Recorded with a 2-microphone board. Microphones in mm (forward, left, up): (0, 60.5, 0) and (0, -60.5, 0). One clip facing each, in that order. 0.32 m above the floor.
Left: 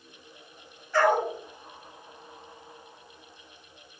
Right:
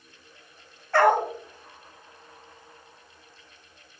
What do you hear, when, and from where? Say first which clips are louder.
0.9 s a dog barking: right 3 dB; 65° right (ahead or behind), 0.9 m